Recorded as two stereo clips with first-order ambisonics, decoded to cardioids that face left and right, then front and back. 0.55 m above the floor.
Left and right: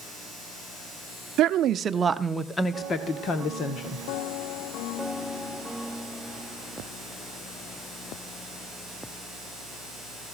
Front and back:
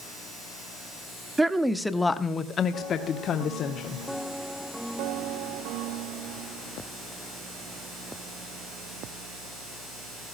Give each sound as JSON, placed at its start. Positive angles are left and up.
{"t": 1.4, "sound": "a woman speaking", "azimuth_deg": -100, "distance_m": 0.9}